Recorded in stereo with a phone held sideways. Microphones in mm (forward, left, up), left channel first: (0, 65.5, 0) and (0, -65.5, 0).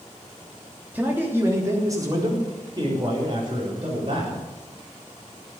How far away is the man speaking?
About 3.5 m.